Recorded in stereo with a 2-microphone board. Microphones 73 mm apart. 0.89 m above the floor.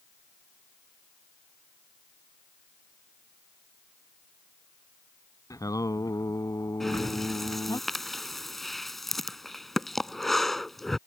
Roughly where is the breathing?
Centre.